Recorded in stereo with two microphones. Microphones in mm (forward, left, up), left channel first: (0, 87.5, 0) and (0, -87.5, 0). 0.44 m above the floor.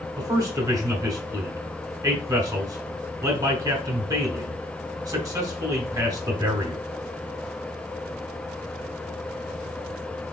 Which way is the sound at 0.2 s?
20° right (ahead or behind).